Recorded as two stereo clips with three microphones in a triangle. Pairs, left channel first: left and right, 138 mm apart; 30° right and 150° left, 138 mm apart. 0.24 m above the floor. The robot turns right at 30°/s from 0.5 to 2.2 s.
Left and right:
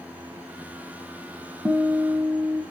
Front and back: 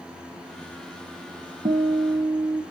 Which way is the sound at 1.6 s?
175° right.